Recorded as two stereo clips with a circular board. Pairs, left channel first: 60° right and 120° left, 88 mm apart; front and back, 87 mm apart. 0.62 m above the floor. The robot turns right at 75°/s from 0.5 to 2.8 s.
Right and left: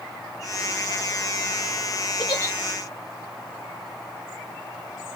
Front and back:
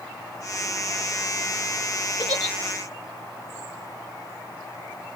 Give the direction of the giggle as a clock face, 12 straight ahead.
1 o'clock.